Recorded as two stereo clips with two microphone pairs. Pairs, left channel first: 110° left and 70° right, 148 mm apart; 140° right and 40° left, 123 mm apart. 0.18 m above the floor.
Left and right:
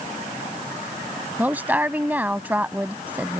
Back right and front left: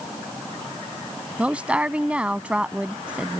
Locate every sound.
1.4 s a woman speaking: 20° right